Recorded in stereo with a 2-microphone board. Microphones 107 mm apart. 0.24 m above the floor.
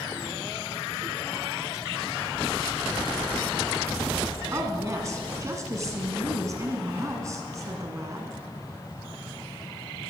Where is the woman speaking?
30° right (ahead or behind), 1.9 m.